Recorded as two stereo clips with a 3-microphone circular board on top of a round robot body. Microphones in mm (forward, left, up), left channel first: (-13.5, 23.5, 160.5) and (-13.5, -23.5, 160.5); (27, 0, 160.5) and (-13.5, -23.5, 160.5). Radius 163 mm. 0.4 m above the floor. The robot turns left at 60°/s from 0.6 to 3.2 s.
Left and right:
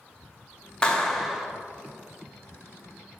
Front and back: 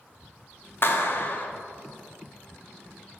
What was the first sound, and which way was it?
A clap, 30° left.